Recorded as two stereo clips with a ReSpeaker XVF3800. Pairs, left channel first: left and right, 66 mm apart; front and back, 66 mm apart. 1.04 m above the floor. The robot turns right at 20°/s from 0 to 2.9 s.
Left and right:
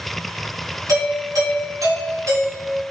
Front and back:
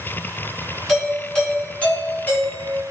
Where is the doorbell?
85° right, 3 m; by 2.8 s 45° right, 3 m.